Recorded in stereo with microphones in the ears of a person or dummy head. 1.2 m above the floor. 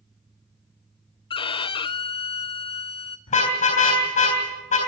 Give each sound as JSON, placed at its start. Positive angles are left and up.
{"t": 1.3, "sound": "a violin", "side_deg": 25, "distance_m": 0.5}
{"t": 3.3, "sound": "a car horn", "side_deg": 35, "distance_m": 3.5}